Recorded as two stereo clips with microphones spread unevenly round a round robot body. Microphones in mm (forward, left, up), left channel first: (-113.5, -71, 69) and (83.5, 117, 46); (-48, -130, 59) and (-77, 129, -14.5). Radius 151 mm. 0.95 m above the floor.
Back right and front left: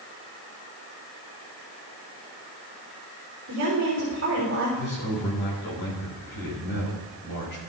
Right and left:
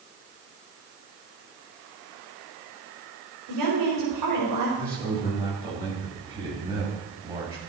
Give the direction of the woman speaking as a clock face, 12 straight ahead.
9 o'clock.